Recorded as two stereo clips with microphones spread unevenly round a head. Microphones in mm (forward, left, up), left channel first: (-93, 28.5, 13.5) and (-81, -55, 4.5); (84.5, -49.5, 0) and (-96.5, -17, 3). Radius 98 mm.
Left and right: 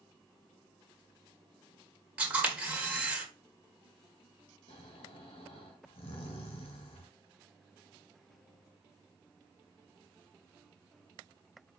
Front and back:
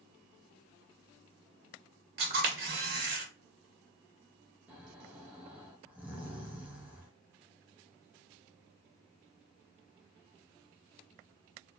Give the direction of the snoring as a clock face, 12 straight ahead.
9 o'clock.